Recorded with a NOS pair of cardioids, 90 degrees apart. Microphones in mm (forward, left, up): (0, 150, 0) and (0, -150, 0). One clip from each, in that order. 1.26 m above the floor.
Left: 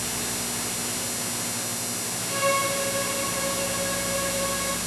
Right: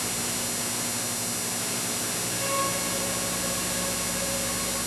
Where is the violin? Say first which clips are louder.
Left 6 dB; 40° left, 1.3 m.